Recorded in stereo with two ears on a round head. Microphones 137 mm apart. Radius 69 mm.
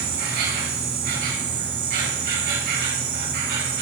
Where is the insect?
70° right (ahead or behind), 3.5 m.